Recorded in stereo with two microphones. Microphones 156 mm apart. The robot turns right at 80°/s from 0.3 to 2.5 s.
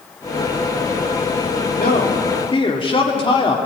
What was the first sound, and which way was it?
A man speaking, 85° left.